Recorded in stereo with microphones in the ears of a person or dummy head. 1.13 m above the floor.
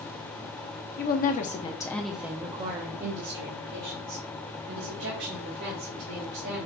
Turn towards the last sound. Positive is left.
turn(degrees=-75)  # may be behind; listen again after turning